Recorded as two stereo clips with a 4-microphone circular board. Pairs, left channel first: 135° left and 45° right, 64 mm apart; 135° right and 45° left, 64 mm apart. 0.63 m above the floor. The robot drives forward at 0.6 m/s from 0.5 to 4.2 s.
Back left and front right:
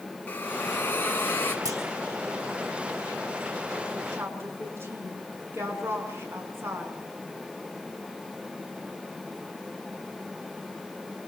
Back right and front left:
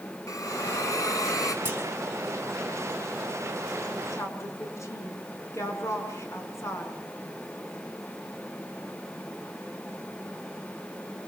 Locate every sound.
0.3 s a hiss: 165° right, 2.5 m
1.6 s a clunk: 15° right, 5.5 m
4.1 s a woman speaking: 95° right, 7 m